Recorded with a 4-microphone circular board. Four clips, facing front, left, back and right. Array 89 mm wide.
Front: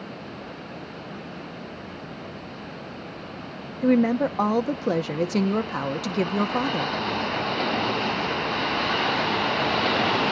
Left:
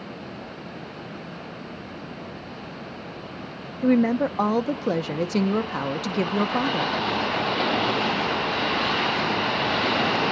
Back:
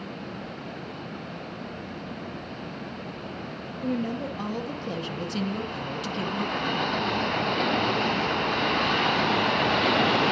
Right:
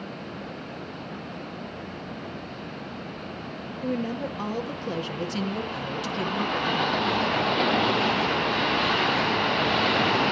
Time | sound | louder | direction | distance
3.8 | a woman speaking | left 9 dB, front 9 dB | 40° left | 1.5 m